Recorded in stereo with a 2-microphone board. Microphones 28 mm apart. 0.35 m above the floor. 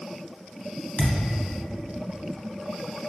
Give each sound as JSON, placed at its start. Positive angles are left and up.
{"t": 1.0, "sound": "a thud", "side_deg": 90, "distance_m": 0.6}